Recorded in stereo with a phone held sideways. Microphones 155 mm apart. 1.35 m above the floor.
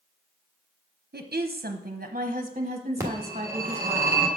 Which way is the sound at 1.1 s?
85° right.